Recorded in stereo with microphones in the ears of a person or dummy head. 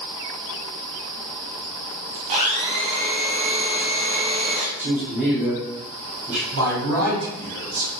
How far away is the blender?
About 0.6 m.